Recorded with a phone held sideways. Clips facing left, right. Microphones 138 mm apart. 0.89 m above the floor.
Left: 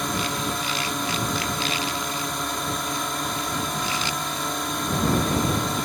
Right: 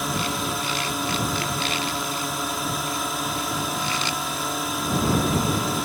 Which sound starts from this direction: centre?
A drone, at 0.0 s.